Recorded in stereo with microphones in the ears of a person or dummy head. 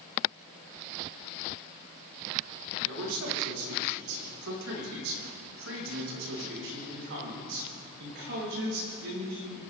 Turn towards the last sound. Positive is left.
turn(degrees=-50)  # may be behind; listen again after turning